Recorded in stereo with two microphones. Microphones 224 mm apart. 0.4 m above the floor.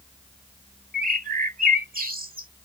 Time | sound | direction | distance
0.9 | a bird | 40° right (ahead or behind) | ?